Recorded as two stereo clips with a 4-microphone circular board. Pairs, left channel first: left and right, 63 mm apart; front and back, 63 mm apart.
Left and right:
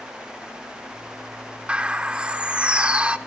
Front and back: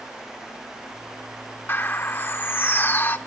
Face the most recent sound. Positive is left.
turn(degrees=-30)